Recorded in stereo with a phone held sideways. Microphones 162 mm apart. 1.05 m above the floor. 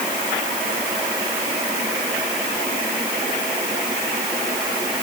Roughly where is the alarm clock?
No alarm clock in this recording.